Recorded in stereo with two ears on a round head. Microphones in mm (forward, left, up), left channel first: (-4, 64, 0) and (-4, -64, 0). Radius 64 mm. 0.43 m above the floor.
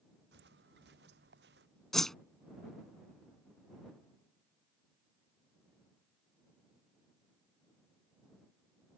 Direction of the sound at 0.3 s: 85° right.